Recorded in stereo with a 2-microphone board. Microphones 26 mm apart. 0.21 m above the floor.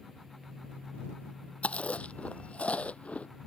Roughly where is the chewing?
Left.